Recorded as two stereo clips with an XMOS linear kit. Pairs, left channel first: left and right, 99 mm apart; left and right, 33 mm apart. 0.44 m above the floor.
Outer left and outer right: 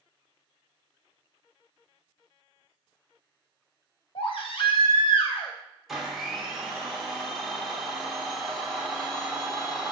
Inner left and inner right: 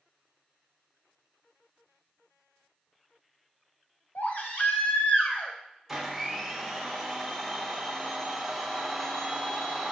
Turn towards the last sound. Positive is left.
turn(degrees=0)  # may be behind; listen again after turning